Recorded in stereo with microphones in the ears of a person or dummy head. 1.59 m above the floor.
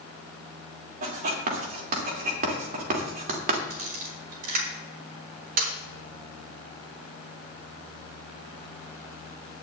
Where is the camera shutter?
45° right (ahead or behind), 5 m.